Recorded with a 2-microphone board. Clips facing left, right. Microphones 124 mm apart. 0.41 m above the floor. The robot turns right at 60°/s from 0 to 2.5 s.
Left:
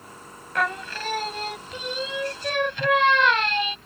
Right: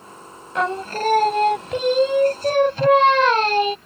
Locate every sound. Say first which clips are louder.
0.6 s singing: right 5 dB; 155° right; by 3.8 s 40° right